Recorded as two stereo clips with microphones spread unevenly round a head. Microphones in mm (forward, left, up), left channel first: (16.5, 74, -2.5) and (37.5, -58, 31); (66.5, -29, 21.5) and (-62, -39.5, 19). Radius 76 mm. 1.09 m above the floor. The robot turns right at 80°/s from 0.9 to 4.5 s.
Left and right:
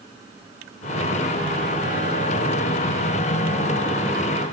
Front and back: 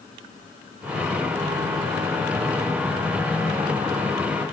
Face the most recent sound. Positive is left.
No sound to turn to.